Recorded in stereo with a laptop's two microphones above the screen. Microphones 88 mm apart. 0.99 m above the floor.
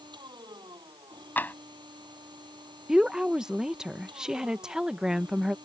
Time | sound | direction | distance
0.0 | a machine running | 60° right (ahead or behind) | ?
1.4 | tapping | 20° left (ahead or behind) | ?
2.9 | a woman speaking | 10° right (ahead or behind) | ?